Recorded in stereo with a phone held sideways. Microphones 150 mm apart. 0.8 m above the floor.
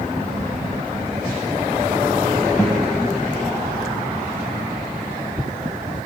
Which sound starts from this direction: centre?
A guitar, at 2.6 s.